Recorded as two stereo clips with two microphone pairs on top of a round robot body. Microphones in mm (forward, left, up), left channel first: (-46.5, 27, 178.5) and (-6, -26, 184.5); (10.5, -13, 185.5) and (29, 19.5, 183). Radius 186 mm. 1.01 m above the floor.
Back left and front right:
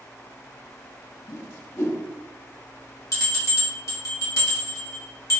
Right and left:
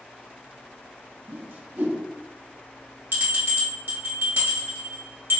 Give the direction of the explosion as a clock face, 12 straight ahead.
I don't hear an explosion.